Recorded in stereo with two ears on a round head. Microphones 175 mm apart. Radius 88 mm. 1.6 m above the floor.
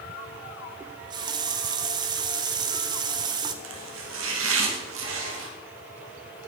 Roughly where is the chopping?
Right.